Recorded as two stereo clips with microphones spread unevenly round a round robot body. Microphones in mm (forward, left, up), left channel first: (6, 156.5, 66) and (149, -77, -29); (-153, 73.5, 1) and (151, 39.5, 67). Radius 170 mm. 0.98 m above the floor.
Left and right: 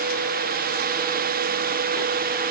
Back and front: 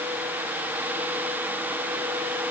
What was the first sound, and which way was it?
Only background noise.